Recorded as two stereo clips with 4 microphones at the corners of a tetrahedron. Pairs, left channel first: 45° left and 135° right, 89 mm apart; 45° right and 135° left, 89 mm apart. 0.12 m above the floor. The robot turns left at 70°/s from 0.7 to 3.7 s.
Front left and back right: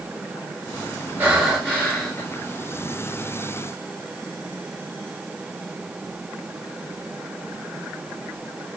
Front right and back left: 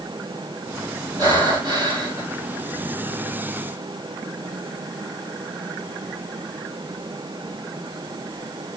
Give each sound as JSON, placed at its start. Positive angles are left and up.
{"t": 1.2, "sound": "breathing", "azimuth_deg": 155, "distance_m": 2.5}